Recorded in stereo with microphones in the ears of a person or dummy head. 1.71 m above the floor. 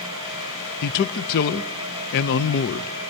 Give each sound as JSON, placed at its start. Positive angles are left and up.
{"t": 0.8, "sound": "a man speaking", "side_deg": 55, "distance_m": 0.6}